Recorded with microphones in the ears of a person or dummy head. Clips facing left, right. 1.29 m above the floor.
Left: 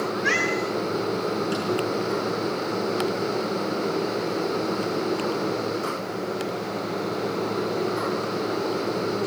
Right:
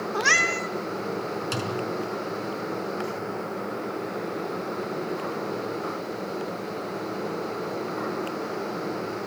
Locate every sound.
0.1 s a cat meowing: 70° right (ahead or behind), 1.9 m
1.5 s a thud: 65° right (ahead or behind), 5 m